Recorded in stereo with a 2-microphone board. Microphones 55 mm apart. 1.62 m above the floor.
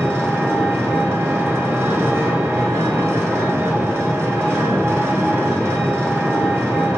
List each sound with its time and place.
0.0 s an engine running: 50° right (ahead or behind), 1.4 m